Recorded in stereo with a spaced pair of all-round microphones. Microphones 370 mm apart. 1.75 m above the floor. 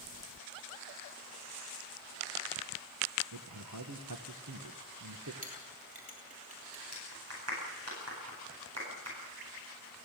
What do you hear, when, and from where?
3.3 s a man speaking: 55° right (ahead or behind), 1.5 m
5.4 s a clink: 25° left (ahead or behind), 4.5 m
6.9 s a clap: 45° right (ahead or behind), 10 m